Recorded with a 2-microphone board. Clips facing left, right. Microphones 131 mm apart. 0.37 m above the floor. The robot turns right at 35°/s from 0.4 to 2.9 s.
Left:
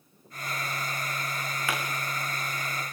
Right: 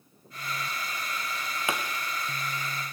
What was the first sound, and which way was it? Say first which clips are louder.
A pop: right 1 dB; 20° right (ahead or behind).